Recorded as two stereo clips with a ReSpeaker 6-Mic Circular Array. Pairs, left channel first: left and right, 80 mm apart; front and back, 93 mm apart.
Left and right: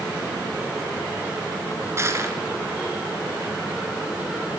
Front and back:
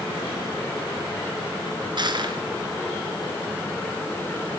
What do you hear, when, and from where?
2.0 s crushing: 145° right, 2.5 m